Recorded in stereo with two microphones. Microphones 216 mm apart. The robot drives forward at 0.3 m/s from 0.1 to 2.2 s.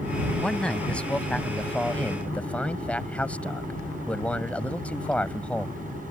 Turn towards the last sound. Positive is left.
turn(degrees=5)  # may be behind; listen again after turning